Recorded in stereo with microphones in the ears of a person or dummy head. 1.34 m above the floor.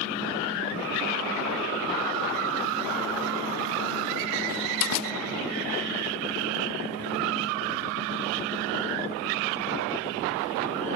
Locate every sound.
4.5 s a door slam: 85° left